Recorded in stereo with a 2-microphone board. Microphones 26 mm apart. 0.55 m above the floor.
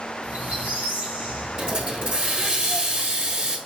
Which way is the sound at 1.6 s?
40° right (ahead or behind).